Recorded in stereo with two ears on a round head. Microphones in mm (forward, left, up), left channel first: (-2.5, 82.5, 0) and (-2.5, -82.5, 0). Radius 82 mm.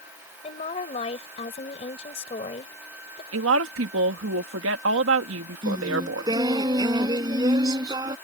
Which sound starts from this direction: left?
A woman speaking, at 0.4 s.